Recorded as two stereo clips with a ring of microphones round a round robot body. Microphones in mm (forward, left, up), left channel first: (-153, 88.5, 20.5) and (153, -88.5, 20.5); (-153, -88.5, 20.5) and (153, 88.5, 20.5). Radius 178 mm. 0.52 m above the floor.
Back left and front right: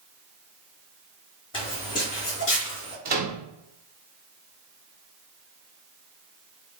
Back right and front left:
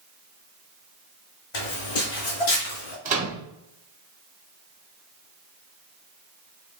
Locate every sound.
1.5 s footsteps: 135° right, 1.8 m; by 3.0 s 160° right, 1.9 m
3.0 s a microwave: 10° right, 1.1 m